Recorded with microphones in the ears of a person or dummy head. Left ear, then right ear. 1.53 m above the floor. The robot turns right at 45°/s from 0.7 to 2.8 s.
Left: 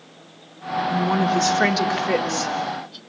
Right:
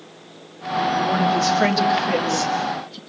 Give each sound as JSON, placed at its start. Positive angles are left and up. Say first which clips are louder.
{"t": 0.9, "sound": "a woman speaking", "louder": "right 1 dB", "azimuth_deg": 115, "distance_m": 2.5}